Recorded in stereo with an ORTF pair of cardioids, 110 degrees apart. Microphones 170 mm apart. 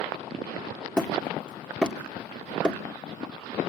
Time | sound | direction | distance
1.0 | hammering | 5° left | 2 m